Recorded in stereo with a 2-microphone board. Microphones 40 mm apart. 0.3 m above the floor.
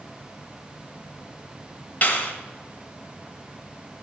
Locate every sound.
2.0 s a clap: 40° left (ahead or behind), 1.4 m